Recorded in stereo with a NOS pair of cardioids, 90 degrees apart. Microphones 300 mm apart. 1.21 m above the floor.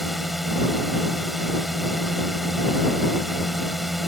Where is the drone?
Straight ahead.